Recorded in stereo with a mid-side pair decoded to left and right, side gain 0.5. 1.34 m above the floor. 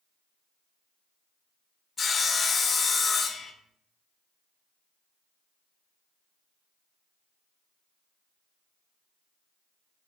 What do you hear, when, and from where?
2.0 s sawing: 40° left, 0.6 m